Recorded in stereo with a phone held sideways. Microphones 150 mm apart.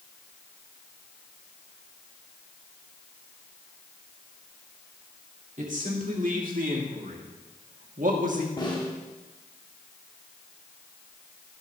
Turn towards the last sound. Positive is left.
turn(degrees=30)  # may be behind; listen again after turning